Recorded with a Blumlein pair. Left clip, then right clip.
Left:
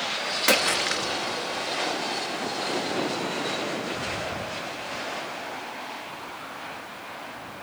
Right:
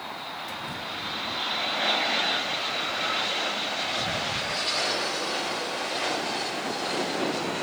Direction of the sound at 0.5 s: 40° left.